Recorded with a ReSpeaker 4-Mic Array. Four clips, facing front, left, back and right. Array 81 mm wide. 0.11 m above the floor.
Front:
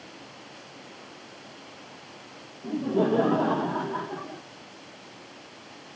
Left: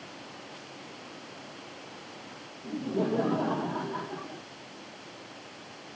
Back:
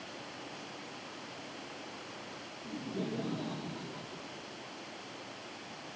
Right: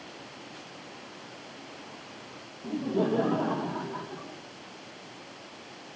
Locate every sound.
2.6 s laughter: 20° right; by 4.4 s 15° left